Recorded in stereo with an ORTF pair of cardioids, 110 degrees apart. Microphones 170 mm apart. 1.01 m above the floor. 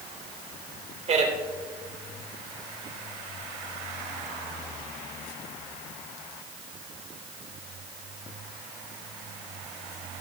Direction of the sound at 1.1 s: 40° right.